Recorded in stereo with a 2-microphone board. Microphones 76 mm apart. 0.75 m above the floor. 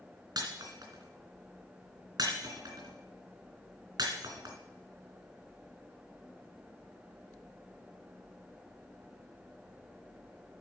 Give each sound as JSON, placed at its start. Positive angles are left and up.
{"t": 0.4, "sound": "breaking glass", "side_deg": -65, "distance_m": 2.5}